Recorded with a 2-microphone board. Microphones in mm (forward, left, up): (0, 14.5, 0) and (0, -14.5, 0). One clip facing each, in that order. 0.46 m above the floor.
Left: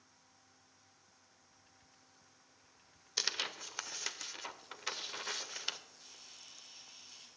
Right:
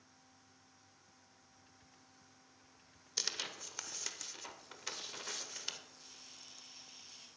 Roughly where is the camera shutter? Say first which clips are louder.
Left 1 dB; centre.